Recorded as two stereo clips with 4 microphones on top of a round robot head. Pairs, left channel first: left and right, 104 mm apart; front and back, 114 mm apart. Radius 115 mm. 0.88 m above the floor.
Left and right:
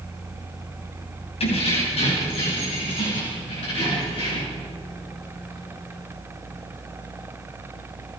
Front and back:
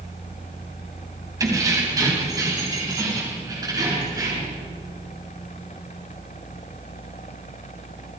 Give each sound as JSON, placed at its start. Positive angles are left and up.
{"t": 1.4, "sound": "keys jangling", "azimuth_deg": 120, "distance_m": 4.5}